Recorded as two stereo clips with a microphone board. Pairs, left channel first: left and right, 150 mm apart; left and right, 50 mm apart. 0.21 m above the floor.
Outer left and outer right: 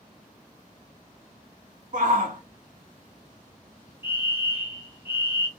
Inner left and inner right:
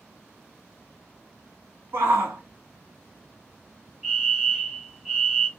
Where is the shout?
55° right (ahead or behind), 1.7 m.